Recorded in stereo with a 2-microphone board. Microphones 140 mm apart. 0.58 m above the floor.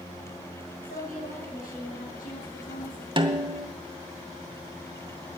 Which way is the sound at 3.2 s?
35° right (ahead or behind).